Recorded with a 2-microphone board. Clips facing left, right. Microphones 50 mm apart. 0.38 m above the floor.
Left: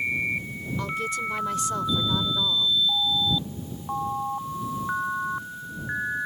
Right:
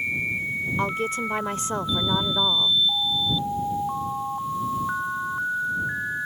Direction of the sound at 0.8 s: 35° right (ahead or behind).